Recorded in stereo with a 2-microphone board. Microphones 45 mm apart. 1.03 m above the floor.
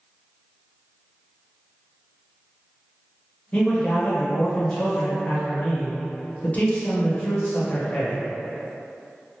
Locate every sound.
3.5 s a man speaking: 35° left (ahead or behind), 0.8 m